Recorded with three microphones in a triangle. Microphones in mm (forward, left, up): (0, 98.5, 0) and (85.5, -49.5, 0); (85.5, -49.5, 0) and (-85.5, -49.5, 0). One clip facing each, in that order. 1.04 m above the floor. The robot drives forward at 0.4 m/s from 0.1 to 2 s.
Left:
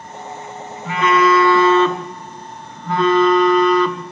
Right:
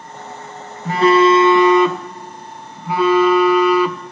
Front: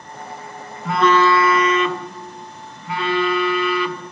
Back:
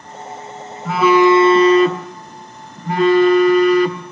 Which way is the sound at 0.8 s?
90° right.